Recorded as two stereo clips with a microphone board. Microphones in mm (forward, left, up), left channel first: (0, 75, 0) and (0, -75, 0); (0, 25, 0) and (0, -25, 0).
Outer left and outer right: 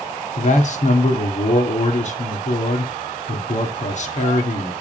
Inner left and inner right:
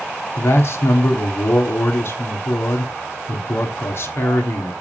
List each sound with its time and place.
0.4 s a man speaking: 55° left (ahead or behind), 1.5 m